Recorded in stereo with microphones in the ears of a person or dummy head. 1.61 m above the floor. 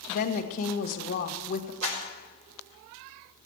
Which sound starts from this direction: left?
A woman speaking, at 0.1 s.